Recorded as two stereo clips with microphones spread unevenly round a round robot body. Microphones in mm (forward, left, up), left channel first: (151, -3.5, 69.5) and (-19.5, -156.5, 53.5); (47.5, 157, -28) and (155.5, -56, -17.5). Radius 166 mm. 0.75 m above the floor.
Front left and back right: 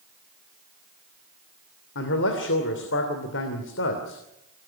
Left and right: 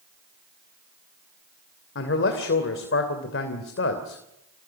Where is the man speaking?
90° left, 3 m.